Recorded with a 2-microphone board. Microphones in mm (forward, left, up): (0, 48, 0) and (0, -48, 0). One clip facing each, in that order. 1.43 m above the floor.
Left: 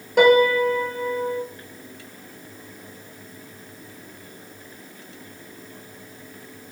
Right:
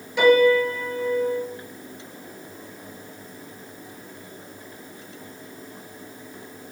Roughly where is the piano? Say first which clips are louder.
Left 1 dB; left.